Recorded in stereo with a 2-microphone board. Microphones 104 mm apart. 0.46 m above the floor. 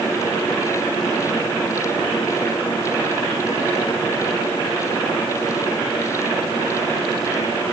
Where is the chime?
No chime in this recording.